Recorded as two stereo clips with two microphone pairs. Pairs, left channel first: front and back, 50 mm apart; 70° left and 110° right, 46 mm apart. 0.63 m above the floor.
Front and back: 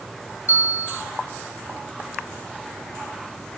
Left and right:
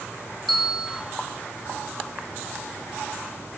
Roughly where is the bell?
Ahead.